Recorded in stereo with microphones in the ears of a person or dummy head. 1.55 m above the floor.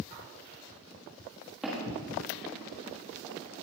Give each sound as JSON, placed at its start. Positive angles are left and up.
{"t": 1.6, "sound": "footsteps", "side_deg": -5, "distance_m": 3.0}